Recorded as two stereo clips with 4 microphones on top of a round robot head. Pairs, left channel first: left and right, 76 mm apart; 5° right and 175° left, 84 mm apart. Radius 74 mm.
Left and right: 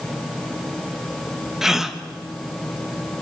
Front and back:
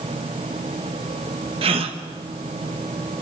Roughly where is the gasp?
Behind.